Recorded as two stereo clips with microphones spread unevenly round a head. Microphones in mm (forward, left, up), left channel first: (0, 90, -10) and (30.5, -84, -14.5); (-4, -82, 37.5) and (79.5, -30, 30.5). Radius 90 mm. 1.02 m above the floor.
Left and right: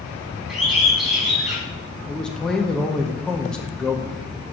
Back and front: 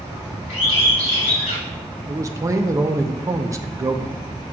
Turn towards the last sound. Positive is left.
turn(degrees=15)